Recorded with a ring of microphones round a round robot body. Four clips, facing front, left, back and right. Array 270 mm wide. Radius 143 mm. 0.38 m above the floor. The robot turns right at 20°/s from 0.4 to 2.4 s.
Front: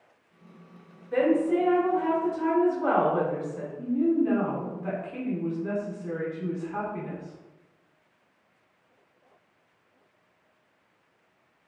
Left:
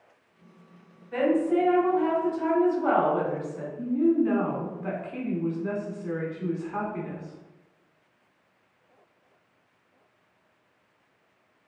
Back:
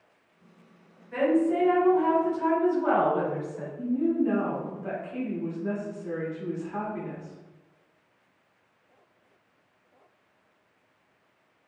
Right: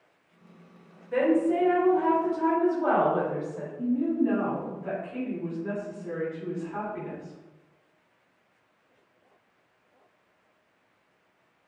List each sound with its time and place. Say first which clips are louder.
1.1 s a woman speaking: even, front 1 dB; 60° right, 1.6 m; by 3.7 s 35° right, 1.6 m
3.8 s a woman speaking: left 3 dB, front 1 dB; 70° left, 1.2 m